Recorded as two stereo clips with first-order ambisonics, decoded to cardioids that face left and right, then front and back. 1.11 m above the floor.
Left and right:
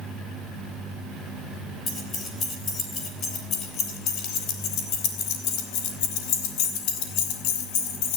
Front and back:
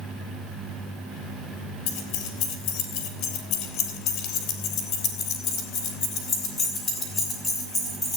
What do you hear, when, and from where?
1.9 s keys jangling: 15° left, 3 m; by 8.2 s 80° left, 4 m